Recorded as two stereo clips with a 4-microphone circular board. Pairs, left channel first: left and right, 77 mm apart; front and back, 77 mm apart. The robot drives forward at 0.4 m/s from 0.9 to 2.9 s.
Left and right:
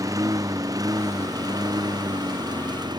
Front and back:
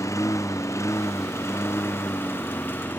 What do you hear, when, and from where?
0.0 s a lawn mower: 50° right; by 3.0 s 65° right